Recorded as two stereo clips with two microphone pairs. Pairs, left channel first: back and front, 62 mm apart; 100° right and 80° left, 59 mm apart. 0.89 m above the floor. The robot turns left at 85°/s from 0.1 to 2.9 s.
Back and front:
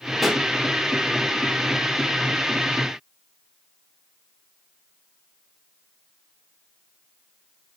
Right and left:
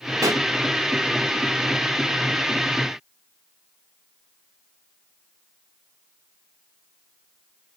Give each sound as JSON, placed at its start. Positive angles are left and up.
{"t": 0.2, "sound": "a pop", "azimuth_deg": 85, "distance_m": 1.6}